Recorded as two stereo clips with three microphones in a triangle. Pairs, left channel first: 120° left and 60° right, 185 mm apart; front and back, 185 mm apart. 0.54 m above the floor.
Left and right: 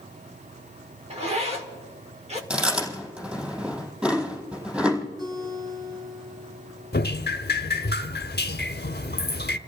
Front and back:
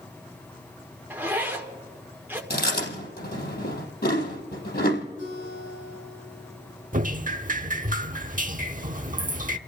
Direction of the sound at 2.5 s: 20° left.